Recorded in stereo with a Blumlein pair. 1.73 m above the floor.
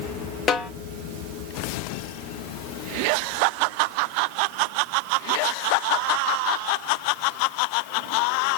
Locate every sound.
0.5 s a snare drum: 25° left, 0.7 m